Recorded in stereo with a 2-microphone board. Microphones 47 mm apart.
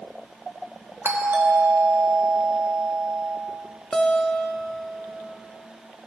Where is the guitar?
10° left (ahead or behind), 0.7 m.